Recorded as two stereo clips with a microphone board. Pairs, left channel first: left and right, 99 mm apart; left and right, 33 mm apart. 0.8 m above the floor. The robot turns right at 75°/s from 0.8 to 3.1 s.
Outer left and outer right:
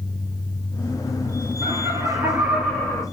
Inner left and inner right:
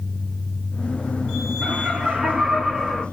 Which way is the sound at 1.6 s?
75° right.